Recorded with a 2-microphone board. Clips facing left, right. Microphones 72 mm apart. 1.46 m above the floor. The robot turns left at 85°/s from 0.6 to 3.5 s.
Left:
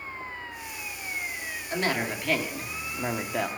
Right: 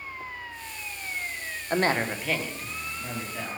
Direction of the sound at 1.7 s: 130° right.